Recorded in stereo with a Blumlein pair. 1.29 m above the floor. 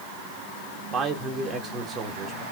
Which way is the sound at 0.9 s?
25° right.